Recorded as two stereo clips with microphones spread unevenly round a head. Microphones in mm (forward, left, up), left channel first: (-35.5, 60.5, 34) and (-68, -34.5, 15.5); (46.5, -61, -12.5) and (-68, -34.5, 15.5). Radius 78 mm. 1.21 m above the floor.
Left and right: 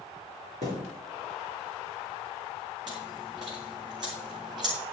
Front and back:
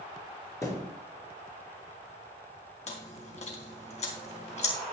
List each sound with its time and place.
0.6 s a thud: 80° right, 4.5 m
2.9 s chewing: 40° right, 3 m